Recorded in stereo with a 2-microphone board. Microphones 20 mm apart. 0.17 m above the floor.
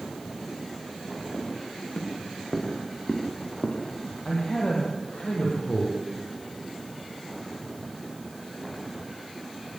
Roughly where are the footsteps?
Left.